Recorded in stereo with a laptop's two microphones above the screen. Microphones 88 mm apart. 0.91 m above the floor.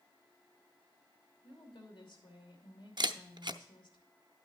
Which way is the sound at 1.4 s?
70° left (ahead or behind).